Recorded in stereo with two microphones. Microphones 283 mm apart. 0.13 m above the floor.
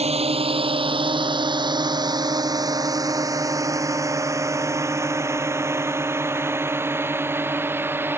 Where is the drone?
20° right (ahead or behind); by 8.2 s 10° right (ahead or behind).